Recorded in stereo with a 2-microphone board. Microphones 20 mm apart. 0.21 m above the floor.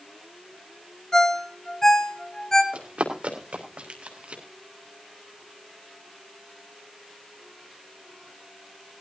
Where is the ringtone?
25° left (ahead or behind), 1.6 m.